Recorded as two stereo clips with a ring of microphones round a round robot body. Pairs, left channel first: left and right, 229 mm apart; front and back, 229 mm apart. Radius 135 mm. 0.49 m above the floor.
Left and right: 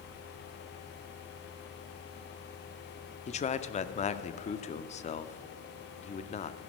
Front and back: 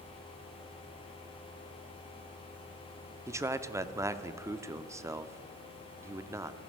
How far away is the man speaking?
About 0.7 m.